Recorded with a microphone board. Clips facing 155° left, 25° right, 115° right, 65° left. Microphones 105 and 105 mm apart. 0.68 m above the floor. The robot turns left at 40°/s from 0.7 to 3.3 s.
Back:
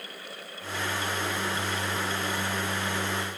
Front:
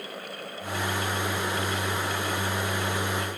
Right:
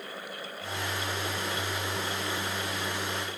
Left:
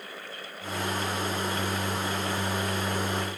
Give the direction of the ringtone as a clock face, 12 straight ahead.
No ringtone in this recording.